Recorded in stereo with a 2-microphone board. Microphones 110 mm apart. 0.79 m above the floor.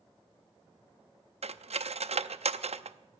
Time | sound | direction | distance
1.4 | cutlery clinking | 75° right (ahead or behind) | 0.6 m